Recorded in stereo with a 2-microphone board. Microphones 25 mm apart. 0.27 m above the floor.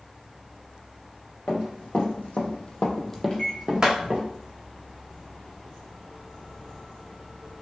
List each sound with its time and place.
1.5 s running footsteps: 75° left (ahead or behind), 1.3 m; by 4.2 s 35° right (ahead or behind), 1.1 m
3.3 s a microwave: 35° left (ahead or behind), 1.0 m